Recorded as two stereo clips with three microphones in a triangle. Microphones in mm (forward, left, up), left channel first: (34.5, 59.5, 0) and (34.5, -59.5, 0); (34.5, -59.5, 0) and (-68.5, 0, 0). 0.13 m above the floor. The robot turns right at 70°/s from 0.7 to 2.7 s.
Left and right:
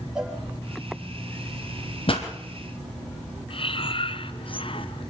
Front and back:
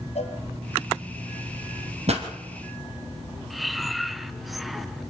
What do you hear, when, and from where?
0.1 s a cowbell: 5° right, 4 m
2.1 s a pop: 125° left, 3 m; by 2.3 s 140° left, 3 m
3.5 s breathing: 60° left, 1.0 m